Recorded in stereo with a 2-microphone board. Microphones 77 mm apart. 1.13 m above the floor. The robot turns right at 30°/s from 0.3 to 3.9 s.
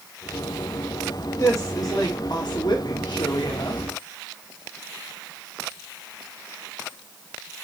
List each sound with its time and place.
1.4 s a woman speaking: 40° left, 1.7 m; by 3.8 s 115° left, 1.7 m